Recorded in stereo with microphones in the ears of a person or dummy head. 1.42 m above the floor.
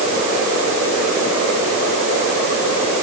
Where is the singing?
No singing in this recording.